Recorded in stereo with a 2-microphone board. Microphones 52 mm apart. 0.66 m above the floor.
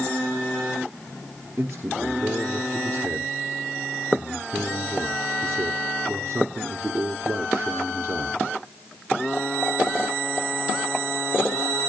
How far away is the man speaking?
About 1.7 m.